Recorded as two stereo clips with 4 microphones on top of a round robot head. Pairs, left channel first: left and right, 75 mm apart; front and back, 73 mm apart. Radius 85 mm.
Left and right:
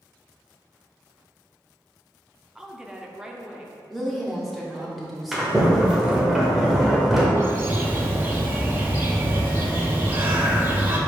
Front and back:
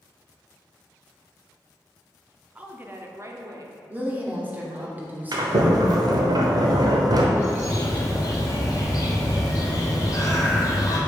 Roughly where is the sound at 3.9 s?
Behind.